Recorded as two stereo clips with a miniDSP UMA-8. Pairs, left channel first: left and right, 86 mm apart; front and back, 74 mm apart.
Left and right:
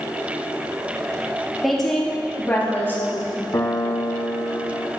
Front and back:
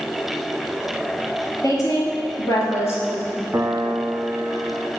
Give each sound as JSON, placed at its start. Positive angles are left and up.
{"t": 1.6, "sound": "a woman speaking", "azimuth_deg": 0, "distance_m": 2.0}
{"t": 3.5, "sound": "a piano", "azimuth_deg": 130, "distance_m": 0.5}